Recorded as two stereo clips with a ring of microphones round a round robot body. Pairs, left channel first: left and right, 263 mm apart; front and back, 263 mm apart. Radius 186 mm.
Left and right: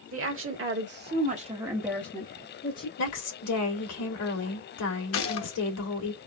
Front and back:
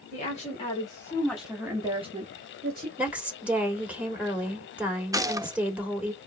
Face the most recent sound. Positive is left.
turn(degrees=105)